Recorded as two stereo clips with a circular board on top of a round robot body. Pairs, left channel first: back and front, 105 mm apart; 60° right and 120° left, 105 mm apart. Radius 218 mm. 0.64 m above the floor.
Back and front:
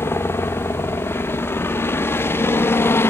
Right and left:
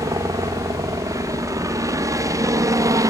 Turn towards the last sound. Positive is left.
turn(degrees=135)